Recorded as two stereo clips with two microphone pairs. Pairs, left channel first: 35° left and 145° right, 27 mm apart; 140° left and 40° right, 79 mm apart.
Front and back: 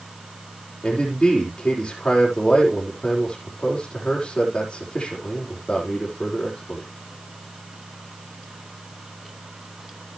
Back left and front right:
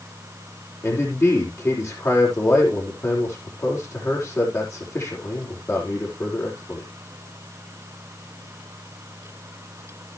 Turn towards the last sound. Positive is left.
turn(degrees=90)